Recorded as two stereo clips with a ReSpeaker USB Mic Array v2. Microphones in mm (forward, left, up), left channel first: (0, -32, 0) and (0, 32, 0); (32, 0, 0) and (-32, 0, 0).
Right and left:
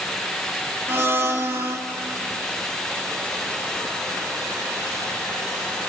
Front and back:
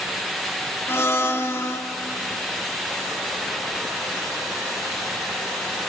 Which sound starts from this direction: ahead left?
A blender, at 0.9 s.